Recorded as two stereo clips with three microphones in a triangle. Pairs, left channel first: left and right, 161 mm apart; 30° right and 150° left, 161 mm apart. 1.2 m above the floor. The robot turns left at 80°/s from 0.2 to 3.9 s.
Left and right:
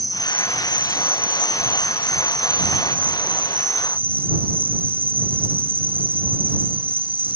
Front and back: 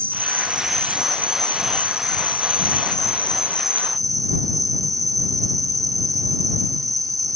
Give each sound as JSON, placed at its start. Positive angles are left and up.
{"t": 0.0, "sound": "an insect", "azimuth_deg": 155}